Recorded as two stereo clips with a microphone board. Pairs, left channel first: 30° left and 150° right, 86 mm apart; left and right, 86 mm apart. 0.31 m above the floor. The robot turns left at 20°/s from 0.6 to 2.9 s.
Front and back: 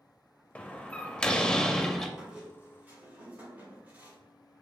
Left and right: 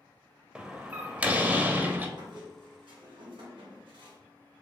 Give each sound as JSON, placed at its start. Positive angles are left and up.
{"t": 0.6, "sound": "a door slam", "azimuth_deg": -25, "distance_m": 0.6}
{"t": 2.2, "sound": "a squeak", "azimuth_deg": -65, "distance_m": 2.0}